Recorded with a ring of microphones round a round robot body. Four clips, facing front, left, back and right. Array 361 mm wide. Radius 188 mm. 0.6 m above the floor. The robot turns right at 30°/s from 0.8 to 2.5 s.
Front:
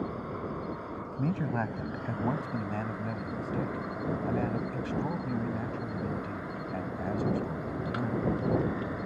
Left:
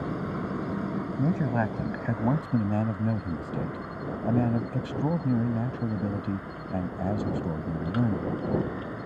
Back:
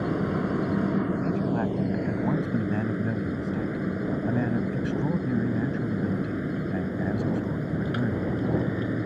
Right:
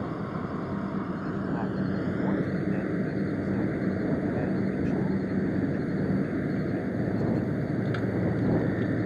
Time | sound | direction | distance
0.0 | an insect | straight behind | ?
1.2 | a man speaking | 70° left | ?